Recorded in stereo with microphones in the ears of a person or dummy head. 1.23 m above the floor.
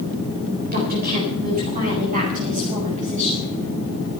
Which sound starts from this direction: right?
A woman speaking, at 0.7 s.